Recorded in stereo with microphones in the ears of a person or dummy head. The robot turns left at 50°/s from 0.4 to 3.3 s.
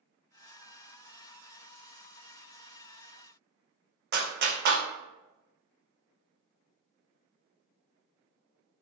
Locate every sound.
4.1 s a clap: 55° right (ahead or behind), 0.7 m